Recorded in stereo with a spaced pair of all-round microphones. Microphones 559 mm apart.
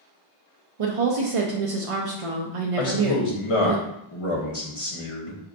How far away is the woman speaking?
About 0.6 m.